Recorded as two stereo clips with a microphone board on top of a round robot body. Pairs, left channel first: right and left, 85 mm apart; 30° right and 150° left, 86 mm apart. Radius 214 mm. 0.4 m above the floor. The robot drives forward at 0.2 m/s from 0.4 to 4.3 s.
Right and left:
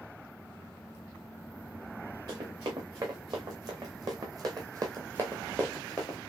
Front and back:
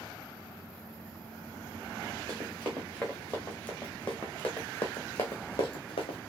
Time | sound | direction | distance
2.3 | running footsteps | 45° left | 2.5 m